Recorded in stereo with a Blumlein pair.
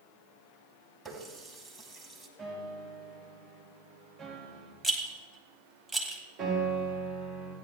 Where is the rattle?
10° right, 1.8 m.